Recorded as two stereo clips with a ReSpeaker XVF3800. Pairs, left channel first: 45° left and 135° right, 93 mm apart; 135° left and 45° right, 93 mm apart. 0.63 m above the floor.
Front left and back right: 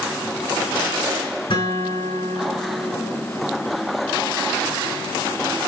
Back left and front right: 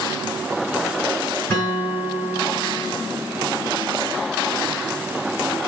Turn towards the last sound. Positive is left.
turn(degrees=65)